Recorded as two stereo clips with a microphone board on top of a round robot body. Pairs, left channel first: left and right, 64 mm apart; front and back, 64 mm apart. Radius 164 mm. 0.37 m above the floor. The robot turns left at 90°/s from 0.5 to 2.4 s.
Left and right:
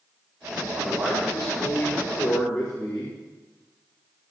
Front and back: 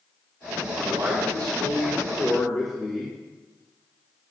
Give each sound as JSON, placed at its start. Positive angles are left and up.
{"t": 0.7, "sound": "a man speaking", "azimuth_deg": -120, "distance_m": 2.5}